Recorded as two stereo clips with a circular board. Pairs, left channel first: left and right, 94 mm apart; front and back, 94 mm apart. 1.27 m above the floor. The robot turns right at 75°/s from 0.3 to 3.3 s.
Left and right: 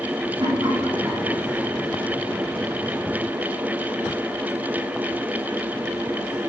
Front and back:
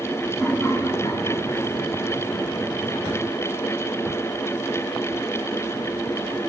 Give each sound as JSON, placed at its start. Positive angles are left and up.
{"t": 0.4, "sound": "laughter", "azimuth_deg": -80, "distance_m": 3.5}